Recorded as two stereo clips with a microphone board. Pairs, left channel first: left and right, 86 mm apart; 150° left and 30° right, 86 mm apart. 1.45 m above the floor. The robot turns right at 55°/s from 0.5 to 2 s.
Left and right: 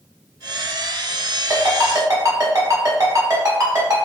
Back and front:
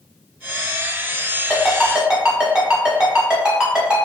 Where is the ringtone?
135° right, 1.3 m; by 4.1 s 105° right, 1.3 m.